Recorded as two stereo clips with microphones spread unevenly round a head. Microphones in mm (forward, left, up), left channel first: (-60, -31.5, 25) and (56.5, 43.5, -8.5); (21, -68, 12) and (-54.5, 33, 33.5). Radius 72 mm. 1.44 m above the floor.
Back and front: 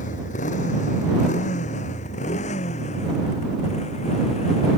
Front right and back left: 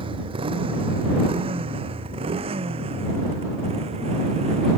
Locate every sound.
0.0 s a motorcycle: 175° left; by 4.8 s 170° left